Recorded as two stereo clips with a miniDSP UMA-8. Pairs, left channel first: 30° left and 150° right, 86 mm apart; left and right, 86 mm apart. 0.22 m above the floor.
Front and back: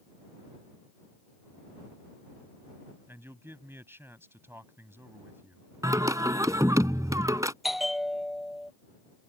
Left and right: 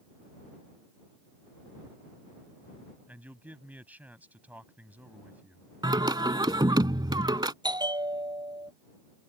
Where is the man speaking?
140° right.